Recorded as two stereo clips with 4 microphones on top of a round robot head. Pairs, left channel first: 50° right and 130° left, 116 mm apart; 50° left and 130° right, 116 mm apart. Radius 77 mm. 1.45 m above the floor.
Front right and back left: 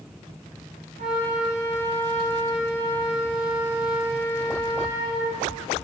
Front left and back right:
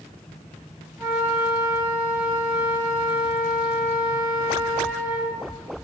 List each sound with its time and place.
1.0 s a flute: 145° left, 3 m